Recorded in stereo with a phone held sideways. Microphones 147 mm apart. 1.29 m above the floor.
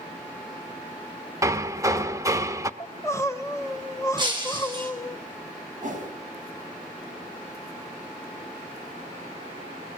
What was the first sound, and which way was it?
Hammering, 20° right (ahead or behind).